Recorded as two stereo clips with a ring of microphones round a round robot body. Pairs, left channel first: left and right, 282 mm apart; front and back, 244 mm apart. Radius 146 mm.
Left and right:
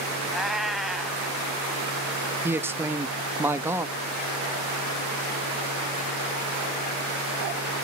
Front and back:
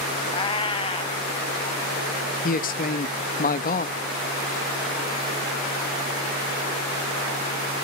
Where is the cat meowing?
Straight ahead, 0.5 m.